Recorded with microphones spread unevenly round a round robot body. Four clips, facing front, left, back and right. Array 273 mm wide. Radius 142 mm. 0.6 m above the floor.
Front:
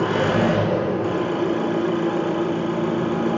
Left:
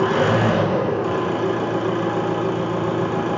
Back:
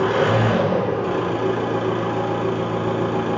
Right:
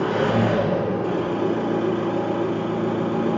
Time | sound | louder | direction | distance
0.0 | an engine running | left 3 dB, back 1 dB | 95° left | 1.8 m